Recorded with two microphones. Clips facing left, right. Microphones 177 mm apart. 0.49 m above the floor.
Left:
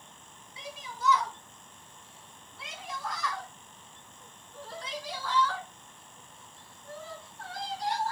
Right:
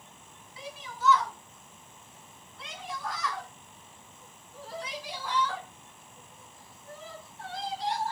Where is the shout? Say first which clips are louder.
Right 1 dB; 20° left (ahead or behind), 3.5 m; by 8.1 s 25° right (ahead or behind), 5.5 m.